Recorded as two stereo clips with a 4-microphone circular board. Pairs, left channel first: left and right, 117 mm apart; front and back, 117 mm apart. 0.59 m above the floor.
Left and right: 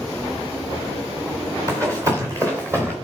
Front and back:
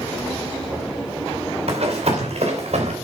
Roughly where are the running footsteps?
Behind right.